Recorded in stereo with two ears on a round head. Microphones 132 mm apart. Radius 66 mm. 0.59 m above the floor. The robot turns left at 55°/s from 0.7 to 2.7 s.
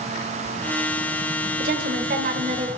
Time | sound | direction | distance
1.6 | a woman speaking | 75° right | 1.9 m